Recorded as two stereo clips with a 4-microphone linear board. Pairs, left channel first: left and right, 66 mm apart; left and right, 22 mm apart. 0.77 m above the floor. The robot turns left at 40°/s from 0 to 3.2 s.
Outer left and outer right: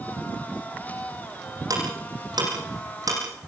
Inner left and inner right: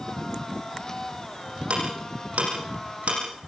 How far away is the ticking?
About 9 m.